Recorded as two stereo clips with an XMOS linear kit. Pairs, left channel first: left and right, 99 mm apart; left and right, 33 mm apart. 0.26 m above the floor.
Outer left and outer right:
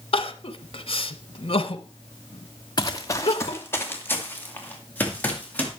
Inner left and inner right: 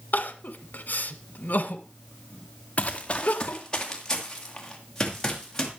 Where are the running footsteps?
45° left (ahead or behind), 1.3 m; by 5.7 s 15° left (ahead or behind), 5.5 m.